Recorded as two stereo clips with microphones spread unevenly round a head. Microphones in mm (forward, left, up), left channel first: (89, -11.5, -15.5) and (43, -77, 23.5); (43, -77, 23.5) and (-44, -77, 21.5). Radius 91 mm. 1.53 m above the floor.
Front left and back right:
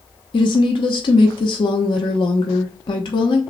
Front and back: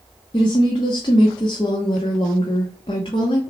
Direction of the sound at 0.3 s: 60° left.